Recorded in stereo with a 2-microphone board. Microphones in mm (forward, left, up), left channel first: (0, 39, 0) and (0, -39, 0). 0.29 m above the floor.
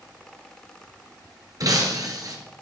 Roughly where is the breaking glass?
Right.